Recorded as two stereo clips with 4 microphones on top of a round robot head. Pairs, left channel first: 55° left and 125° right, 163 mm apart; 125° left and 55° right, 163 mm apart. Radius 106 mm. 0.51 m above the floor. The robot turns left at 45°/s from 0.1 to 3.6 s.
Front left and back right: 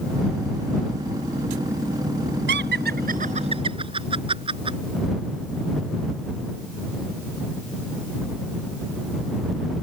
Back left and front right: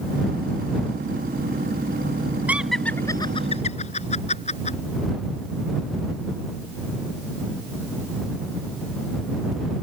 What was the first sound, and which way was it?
Laughter, 135° right.